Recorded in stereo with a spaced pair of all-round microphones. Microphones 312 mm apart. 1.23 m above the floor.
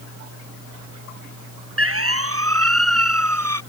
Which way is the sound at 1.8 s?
45° right (ahead or behind).